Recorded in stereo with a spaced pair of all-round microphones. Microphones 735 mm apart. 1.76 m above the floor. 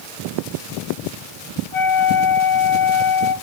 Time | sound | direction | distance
1.7 | a flute | 45° left (ahead or behind) | 1.4 m